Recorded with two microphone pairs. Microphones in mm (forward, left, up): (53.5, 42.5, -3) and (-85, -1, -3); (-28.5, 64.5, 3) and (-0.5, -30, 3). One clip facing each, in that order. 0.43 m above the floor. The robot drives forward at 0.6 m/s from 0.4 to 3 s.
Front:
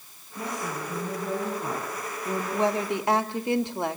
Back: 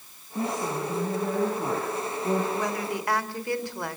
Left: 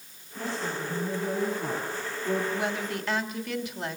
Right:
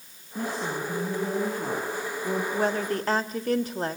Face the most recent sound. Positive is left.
turn(degrees=-40)